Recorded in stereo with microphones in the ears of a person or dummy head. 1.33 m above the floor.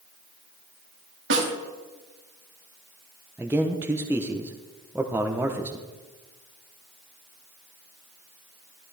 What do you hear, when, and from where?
1.3 s a snare drum: 70° right (ahead or behind), 2 m
3.4 s a man speaking: 10° right (ahead or behind), 0.8 m